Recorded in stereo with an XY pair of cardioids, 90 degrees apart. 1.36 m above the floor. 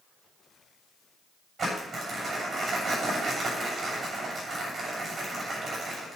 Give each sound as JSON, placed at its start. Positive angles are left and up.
{"t": 1.6, "sound": "crumpling", "azimuth_deg": -45, "distance_m": 8.0}